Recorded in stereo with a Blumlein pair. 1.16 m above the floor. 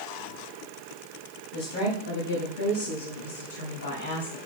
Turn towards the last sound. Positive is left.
turn(degrees=70)